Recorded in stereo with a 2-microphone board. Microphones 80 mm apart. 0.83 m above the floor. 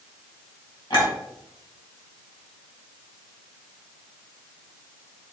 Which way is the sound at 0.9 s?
60° left (ahead or behind).